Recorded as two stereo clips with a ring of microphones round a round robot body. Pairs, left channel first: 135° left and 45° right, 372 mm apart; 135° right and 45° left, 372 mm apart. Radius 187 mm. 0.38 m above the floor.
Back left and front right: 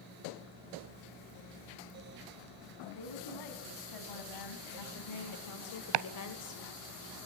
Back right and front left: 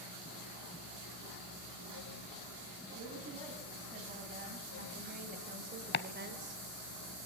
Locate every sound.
3.0 s a woman speaking: 115° left, 4 m; by 6.6 s 95° left, 1.7 m
5.9 s chopping: 70° right, 0.6 m